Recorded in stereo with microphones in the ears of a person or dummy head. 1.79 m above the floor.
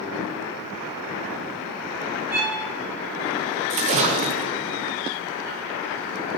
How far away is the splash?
About 0.6 m.